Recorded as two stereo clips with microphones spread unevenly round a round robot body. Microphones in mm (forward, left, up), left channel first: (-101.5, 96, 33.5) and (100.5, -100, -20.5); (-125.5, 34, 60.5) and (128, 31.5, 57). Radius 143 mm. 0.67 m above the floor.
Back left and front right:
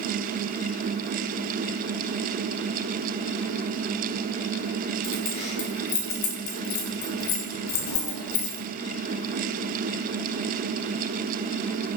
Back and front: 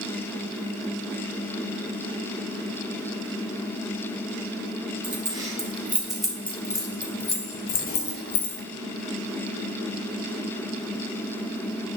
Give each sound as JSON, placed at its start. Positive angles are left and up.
{"t": 5.0, "sound": "keys jangling", "azimuth_deg": 70, "distance_m": 4.0}